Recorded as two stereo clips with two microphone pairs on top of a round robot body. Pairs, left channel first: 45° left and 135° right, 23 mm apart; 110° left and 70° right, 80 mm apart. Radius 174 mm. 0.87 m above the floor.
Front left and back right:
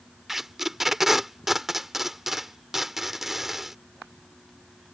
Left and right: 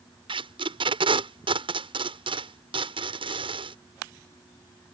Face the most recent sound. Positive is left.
turn(degrees=-55)